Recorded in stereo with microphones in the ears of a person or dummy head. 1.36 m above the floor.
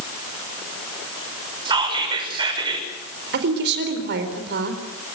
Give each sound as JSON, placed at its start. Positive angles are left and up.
{"t": 1.6, "sound": "whispering", "side_deg": -25, "distance_m": 6.0}
{"t": 3.3, "sound": "a woman speaking", "side_deg": -60, "distance_m": 4.5}